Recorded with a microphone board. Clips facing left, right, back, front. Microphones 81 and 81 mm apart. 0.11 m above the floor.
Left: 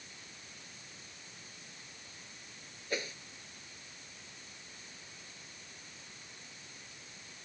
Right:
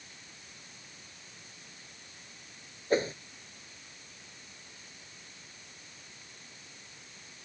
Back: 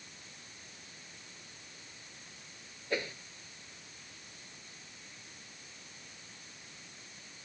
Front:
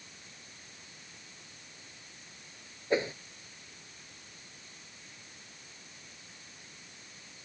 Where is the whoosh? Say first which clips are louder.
Right 10 dB, front 6 dB; 60° right.